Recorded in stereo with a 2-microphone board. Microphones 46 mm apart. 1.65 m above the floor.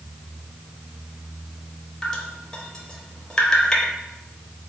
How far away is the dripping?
About 0.7 m.